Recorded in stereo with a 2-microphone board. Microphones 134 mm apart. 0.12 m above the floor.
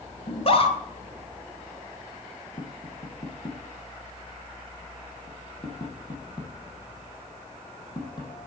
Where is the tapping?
35° left (ahead or behind), 4 m.